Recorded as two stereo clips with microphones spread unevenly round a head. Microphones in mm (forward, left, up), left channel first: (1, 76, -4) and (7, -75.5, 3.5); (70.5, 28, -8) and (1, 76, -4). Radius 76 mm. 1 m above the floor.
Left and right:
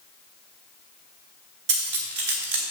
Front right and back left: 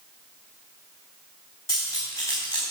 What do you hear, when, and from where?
1.7 s cutlery clinking: 105° right, 3.5 m